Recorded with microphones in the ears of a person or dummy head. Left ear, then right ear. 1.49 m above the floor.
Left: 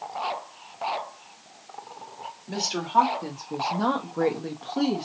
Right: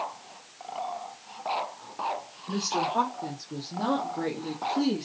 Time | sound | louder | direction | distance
2.5 | a woman speaking | right 1 dB | 85° left | 1.5 m